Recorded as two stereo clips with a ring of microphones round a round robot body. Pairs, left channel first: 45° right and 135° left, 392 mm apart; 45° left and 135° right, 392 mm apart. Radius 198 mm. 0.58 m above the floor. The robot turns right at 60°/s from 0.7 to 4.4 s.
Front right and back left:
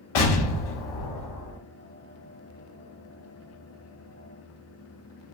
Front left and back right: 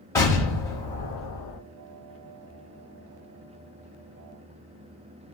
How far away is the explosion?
About 0.9 m.